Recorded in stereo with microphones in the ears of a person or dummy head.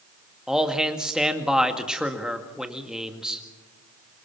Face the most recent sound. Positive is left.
turn(degrees=0)  # may be behind; listen again after turning